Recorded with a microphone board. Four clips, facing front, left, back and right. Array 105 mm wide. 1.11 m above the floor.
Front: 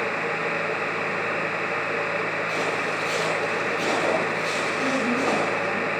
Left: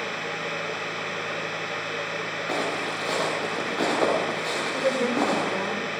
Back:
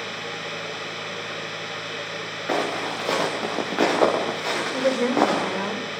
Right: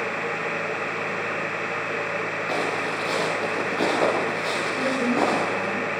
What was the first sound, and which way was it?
Footsteps, 175° left.